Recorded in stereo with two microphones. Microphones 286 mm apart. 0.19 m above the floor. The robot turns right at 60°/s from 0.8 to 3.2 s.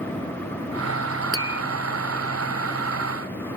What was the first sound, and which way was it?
Tapping, 50° right (ahead or behind).